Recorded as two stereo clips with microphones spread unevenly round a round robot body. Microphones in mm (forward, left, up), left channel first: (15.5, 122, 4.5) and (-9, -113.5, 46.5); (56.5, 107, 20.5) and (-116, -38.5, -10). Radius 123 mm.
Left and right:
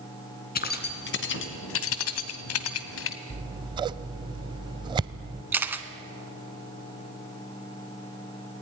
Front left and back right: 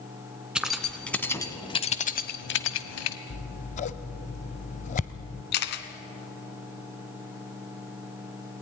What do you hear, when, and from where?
0.6 s keys jangling: 135° left, 2.5 m; by 3.2 s 55° left, 1.7 m
3.3 s scissors: 25° right, 0.5 m
5.5 s a camera shutter: 15° right, 1.3 m